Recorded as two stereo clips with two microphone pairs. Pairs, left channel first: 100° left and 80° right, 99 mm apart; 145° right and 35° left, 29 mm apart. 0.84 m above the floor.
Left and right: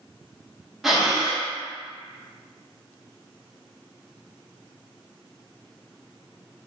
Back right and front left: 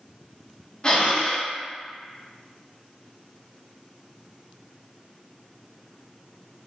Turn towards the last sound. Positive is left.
turn(degrees=-165)